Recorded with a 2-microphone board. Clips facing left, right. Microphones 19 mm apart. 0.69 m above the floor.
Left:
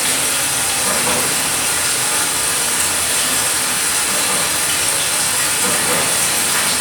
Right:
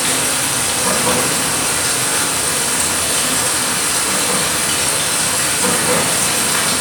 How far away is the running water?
About 1.1 m.